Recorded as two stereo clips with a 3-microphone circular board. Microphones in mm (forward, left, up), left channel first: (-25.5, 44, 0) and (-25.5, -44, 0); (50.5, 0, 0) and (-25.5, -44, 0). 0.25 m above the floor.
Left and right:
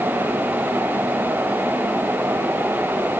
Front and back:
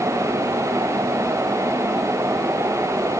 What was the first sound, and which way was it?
Only background noise.